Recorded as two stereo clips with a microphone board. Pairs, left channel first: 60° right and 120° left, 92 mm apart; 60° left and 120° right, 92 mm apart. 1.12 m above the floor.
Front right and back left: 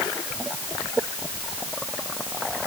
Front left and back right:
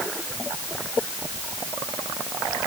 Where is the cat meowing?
No cat meowing in this recording.